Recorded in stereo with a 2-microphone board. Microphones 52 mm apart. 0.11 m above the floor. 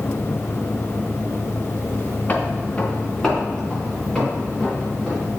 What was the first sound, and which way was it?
Footsteps, 30° left (ahead or behind).